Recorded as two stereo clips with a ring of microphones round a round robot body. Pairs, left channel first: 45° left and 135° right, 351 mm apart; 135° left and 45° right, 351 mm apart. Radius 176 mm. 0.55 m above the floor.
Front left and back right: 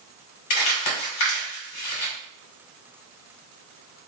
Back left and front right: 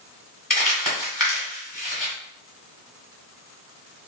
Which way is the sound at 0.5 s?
45° left.